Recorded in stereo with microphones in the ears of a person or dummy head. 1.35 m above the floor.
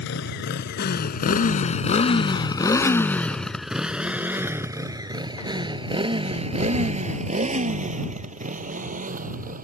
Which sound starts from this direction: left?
A motorcycle, at 0.0 s.